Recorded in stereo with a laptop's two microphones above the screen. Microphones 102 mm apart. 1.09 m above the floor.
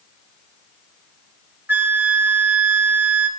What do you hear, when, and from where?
1.7 s a flute: 20° right (ahead or behind), 1.0 m